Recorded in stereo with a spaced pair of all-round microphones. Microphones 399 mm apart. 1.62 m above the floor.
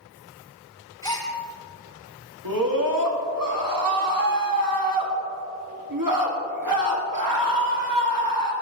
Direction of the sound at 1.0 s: 10° left (ahead or behind).